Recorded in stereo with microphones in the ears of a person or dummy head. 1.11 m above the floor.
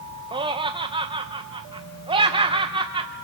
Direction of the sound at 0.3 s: 25° right (ahead or behind).